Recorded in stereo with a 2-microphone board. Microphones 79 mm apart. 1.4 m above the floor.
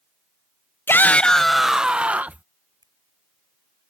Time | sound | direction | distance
0.9 | a shout | 30° left (ahead or behind) | ?
2.8 | a finger snap | 60° right (ahead or behind) | ?